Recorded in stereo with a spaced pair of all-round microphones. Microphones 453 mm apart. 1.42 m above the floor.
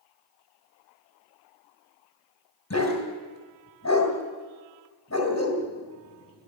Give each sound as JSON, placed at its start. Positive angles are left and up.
{"t": 2.7, "sound": "a dog barking", "side_deg": 35, "distance_m": 2.5}